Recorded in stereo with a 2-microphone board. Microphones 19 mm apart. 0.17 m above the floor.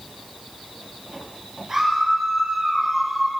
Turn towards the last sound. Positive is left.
turn(degrees=-10)  # may be behind; listen again after turning